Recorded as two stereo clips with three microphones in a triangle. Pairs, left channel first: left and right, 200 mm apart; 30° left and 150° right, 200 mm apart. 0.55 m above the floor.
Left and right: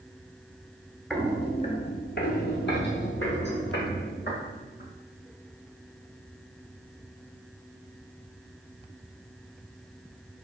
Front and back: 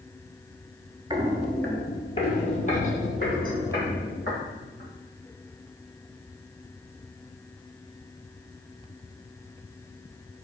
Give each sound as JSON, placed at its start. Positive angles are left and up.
{"t": 1.1, "sound": "footsteps", "azimuth_deg": 175, "distance_m": 0.5}